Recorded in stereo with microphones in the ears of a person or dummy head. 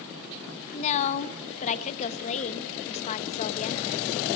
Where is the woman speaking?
40° left (ahead or behind), 1.2 m.